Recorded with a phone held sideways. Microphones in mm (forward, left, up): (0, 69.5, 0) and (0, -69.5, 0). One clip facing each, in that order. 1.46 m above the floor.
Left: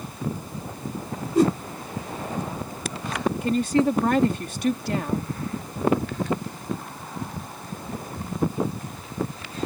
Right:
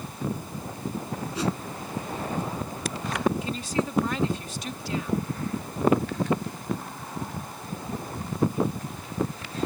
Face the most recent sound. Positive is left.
turn(degrees=55)  # may be behind; listen again after turning